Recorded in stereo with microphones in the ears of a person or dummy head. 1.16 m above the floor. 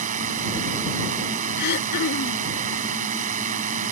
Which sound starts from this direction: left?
Throat clearing, at 1.6 s.